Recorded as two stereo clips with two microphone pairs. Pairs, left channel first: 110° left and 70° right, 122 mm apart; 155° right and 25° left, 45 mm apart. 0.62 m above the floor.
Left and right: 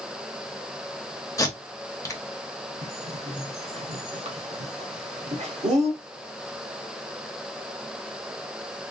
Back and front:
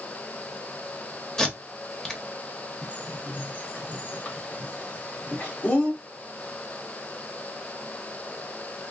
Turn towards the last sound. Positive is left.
turn(degrees=-95)